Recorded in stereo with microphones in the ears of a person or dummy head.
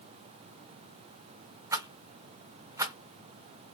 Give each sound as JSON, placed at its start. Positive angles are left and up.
{"t": 1.7, "sound": "a rattle", "side_deg": -15, "distance_m": 0.9}